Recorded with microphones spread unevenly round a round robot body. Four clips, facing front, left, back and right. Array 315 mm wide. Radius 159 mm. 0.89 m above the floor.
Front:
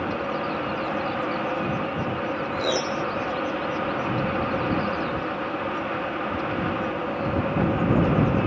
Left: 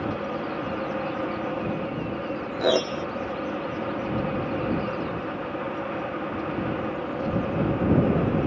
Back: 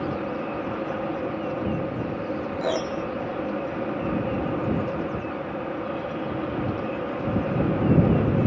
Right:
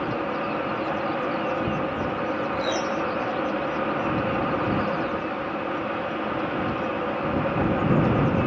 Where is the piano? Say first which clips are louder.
Left 7 dB, even; 90° left.